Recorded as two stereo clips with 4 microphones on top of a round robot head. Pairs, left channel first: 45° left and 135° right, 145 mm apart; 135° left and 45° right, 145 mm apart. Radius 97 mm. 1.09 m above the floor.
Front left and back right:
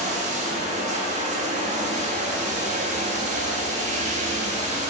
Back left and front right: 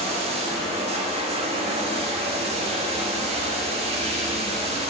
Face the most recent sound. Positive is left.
turn(degrees=-95)